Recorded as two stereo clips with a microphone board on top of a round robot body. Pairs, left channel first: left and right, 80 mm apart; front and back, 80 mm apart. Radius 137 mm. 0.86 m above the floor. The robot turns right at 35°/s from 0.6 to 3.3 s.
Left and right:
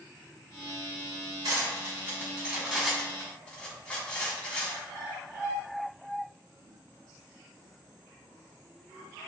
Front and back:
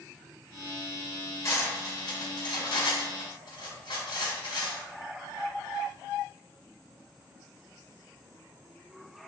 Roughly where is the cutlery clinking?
Ahead right.